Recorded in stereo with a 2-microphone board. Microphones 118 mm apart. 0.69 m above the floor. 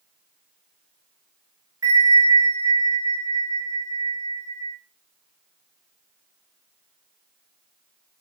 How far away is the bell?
About 1.0 m.